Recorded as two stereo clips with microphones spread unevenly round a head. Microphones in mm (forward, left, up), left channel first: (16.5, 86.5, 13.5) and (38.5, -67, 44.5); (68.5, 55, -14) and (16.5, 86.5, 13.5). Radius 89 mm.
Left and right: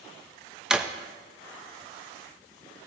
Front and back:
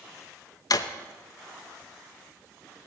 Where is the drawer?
10° right, 0.8 m.